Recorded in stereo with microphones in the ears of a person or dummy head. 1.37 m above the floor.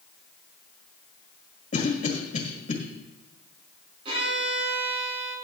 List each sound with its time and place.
1.7 s a cough: 45° left (ahead or behind), 1.7 m
4.0 s a violin: 35° right (ahead or behind), 5 m